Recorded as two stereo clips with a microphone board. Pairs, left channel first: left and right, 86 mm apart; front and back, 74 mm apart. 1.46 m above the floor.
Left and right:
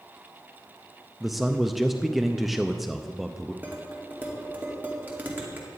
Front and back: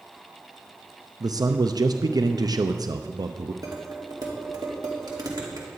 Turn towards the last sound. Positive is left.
turn(degrees=-155)